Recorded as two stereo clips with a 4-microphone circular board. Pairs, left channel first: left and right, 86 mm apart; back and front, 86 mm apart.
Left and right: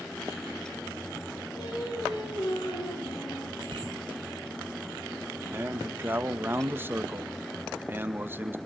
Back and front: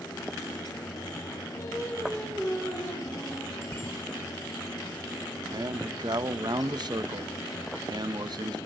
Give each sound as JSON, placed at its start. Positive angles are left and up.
{"t": 1.6, "sound": "singing", "azimuth_deg": 125, "distance_m": 9.0}
{"t": 3.6, "sound": "a bicycle bell", "azimuth_deg": -120, "distance_m": 6.0}
{"t": 5.5, "sound": "a man speaking", "azimuth_deg": -25, "distance_m": 1.4}